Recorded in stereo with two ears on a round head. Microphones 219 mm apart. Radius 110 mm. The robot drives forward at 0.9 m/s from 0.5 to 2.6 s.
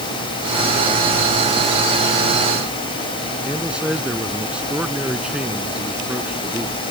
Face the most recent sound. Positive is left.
turn(degrees=-5)  # may be behind; listen again after turning